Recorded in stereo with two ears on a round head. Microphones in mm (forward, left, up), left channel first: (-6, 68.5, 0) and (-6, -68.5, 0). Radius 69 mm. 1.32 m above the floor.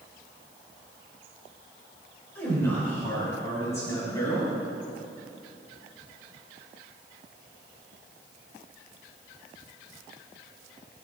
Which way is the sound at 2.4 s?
15° left (ahead or behind).